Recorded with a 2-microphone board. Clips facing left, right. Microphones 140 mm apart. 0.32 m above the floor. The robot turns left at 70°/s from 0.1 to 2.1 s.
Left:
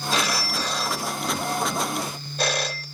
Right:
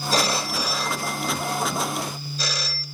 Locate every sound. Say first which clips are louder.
0.1 s a phone ringing: right 3 dB; 130° right, 0.9 m; by 2.9 s 90° left, 0.9 m